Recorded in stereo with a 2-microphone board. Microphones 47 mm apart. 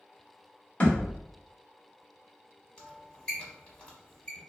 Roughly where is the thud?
Left.